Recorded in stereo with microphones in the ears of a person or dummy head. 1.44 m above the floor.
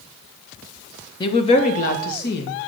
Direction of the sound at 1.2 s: 25° left (ahead or behind).